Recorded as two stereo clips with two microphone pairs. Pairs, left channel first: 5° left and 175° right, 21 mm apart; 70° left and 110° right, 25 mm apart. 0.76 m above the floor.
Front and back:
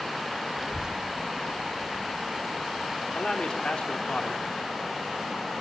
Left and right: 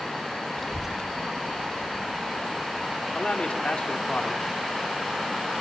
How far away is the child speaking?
About 0.5 m.